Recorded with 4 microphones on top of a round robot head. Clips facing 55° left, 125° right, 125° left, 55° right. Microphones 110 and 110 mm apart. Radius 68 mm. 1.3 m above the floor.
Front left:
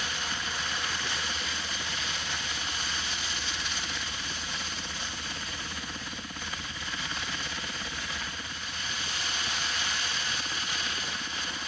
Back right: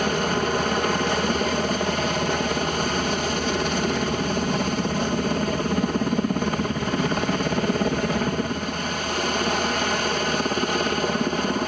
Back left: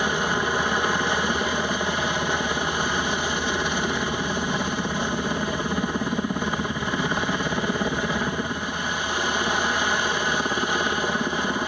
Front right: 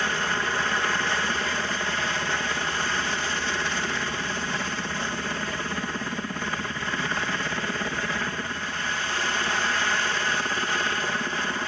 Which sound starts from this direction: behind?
A helicopter, at 0.0 s.